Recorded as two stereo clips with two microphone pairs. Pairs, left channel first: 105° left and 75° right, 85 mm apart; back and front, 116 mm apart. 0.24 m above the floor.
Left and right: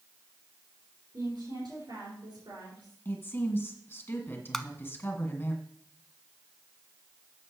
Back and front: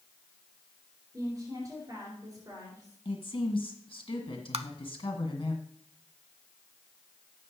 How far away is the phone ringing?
I don't hear a phone ringing.